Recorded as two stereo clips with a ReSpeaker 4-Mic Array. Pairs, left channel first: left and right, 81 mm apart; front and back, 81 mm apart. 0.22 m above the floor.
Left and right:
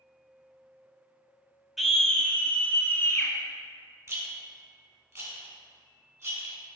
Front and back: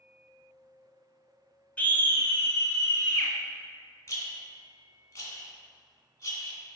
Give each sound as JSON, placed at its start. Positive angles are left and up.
{"t": 1.8, "sound": "a scream", "azimuth_deg": -10, "distance_m": 1.1}
{"t": 4.1, "sound": "a rattle", "azimuth_deg": -45, "distance_m": 2.5}